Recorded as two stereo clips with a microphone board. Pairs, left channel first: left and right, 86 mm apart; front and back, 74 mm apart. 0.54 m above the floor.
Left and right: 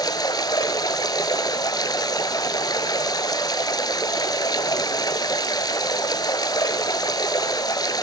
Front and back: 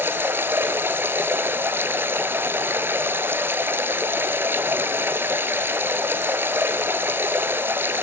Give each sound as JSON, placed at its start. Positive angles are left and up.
{"t": 0.0, "sound": "running water", "azimuth_deg": 125, "distance_m": 1.1}